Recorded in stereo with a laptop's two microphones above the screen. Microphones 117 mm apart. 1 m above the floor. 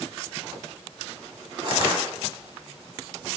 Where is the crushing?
40° right (ahead or behind), 0.9 m.